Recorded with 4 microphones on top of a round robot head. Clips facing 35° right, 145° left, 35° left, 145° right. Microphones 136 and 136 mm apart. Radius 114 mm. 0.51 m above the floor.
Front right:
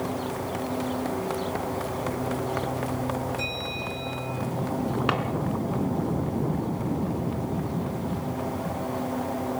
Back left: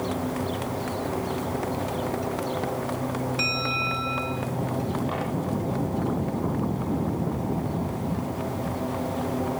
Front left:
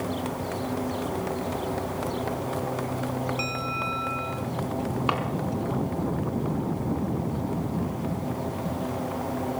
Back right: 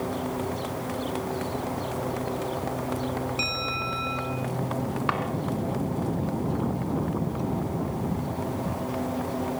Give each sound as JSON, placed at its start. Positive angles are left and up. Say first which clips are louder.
{"t": 3.4, "sound": "a bell", "louder": "back left 3 dB, front left 1 dB", "azimuth_deg": 155, "distance_m": 3.5}
{"t": 5.1, "sound": "a drawer", "louder": "front right 2 dB, front left 1 dB", "azimuth_deg": -40, "distance_m": 3.0}